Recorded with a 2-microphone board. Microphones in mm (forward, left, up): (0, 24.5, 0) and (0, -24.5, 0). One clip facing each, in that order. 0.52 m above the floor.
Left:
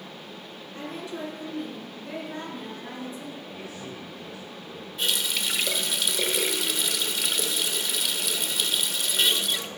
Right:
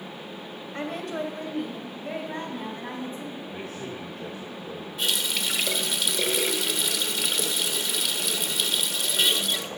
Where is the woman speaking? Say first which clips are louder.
Right 4 dB; 70° right (ahead or behind), 2 m; by 3.4 s 40° right (ahead or behind), 4 m.